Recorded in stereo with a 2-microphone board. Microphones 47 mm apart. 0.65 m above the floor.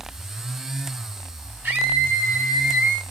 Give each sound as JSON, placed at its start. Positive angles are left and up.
{"t": 1.6, "sound": "a scream", "side_deg": -45, "distance_m": 6.5}